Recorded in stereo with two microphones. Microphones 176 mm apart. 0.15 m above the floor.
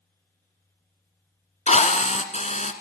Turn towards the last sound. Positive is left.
turn(degrees=45)  # may be behind; listen again after turning